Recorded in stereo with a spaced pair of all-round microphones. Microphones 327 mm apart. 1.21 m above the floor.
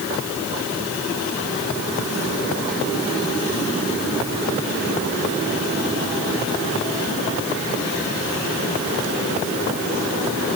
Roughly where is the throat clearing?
No throat clearing in this recording.